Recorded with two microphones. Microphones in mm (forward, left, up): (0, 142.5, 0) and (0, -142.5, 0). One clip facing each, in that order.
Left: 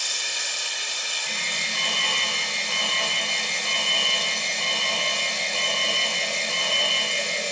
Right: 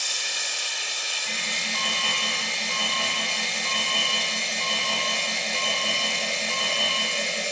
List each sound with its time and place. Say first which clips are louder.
0.0 s running water: even; 25° right (ahead or behind), 1.1 m
1.2 s an alarm: right 2 dB; 10° right (ahead or behind), 0.9 m